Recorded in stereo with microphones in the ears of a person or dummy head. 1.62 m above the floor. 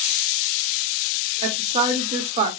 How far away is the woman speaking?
About 1.2 m.